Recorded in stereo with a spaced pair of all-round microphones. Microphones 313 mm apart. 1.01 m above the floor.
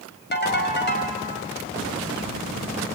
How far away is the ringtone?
About 4 m.